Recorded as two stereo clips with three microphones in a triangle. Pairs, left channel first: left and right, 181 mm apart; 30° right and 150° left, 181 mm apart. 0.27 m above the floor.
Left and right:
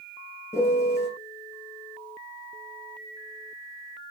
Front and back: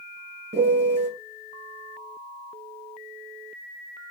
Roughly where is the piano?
Behind.